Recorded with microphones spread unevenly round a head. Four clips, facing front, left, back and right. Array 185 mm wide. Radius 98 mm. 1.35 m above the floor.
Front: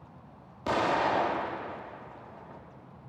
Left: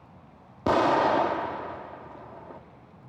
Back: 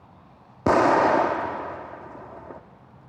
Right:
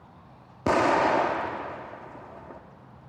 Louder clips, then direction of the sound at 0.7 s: Even, back 9 dB; straight behind.